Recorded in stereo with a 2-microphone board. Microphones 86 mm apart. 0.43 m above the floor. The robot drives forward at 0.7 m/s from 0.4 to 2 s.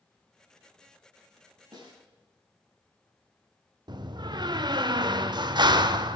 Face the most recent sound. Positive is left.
turn(degrees=-50)  # may be behind; listen again after turning